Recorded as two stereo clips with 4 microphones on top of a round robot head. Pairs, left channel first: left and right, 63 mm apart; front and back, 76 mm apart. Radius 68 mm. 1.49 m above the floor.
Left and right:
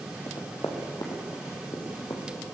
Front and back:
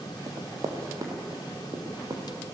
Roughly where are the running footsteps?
Behind left.